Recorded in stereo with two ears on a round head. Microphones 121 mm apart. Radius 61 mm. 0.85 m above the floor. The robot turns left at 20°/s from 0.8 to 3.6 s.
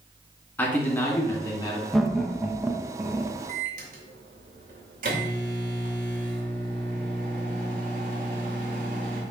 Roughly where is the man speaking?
Centre.